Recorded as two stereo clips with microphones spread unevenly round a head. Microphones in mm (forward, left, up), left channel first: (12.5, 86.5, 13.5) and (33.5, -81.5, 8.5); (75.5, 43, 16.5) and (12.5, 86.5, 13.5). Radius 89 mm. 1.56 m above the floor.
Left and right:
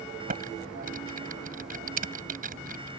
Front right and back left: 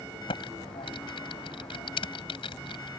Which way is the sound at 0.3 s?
40° right.